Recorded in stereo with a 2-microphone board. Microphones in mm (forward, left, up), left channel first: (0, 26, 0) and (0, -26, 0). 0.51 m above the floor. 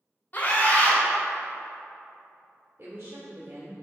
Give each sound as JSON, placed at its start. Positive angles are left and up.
{"t": 0.3, "sound": "a scream", "side_deg": 35, "distance_m": 1.9}
{"t": 2.8, "sound": "a woman speaking", "side_deg": -50, "distance_m": 1.4}